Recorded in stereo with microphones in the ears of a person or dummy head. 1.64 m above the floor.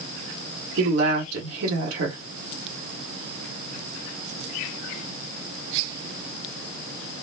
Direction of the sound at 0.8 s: 80° right.